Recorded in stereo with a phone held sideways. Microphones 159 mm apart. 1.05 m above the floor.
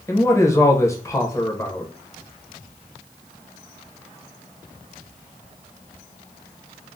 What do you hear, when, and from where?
0.1 s a man speaking: 20° left (ahead or behind), 0.7 m